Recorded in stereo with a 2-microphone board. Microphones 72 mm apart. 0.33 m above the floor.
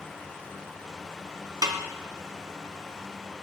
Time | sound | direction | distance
1.6 | a snare drum | 75° right (ahead or behind) | 1.0 m